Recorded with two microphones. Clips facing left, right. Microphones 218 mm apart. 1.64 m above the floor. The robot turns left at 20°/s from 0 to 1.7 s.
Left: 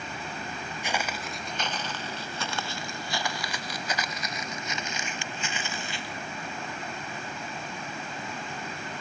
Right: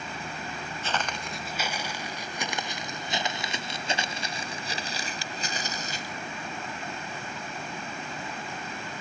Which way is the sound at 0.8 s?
15° left (ahead or behind).